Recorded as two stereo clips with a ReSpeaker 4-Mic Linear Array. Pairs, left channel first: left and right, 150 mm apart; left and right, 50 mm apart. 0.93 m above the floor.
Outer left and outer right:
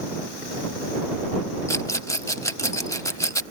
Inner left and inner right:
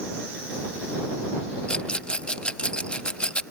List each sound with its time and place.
1.7 s a rattle: 20° left (ahead or behind)